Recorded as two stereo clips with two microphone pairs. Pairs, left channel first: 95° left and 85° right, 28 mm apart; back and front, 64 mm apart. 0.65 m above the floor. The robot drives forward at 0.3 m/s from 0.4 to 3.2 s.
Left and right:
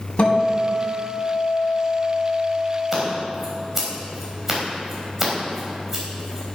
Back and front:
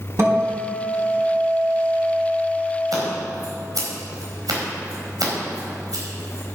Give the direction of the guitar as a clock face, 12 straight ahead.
11 o'clock.